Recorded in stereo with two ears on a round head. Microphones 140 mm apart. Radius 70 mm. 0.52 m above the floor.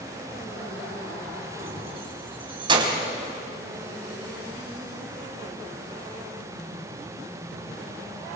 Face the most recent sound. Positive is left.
turn(degrees=-30)  # may be behind; listen again after turning